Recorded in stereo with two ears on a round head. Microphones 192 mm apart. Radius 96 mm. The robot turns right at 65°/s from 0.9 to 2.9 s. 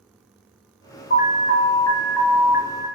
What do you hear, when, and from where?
1.1 s an alarm: 100° left, 0.8 m; by 2.9 s 145° right, 0.8 m